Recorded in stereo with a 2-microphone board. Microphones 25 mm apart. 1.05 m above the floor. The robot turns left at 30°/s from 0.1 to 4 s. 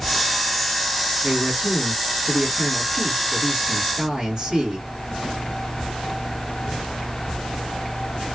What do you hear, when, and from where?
1.2 s a man speaking: 55° right, 1.7 m; by 4.9 s 140° right, 1.7 m